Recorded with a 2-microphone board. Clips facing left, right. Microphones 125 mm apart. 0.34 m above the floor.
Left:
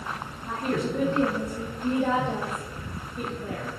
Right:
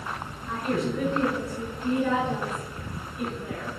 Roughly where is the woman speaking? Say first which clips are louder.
Even; left.